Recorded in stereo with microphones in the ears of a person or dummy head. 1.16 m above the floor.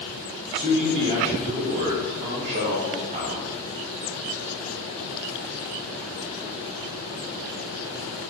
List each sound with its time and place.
0.5 s a man speaking: 20° right (ahead or behind), 0.6 m